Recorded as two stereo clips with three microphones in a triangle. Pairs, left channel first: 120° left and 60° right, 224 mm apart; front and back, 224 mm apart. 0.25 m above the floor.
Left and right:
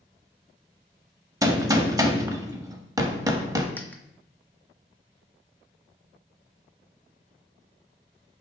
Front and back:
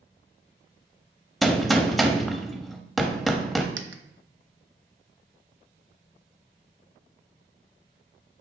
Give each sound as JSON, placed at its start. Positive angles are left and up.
{"t": 1.4, "sound": "a gunshot", "azimuth_deg": -90, "distance_m": 0.5}
{"t": 3.8, "sound": "a dropped coin", "azimuth_deg": -160, "distance_m": 0.5}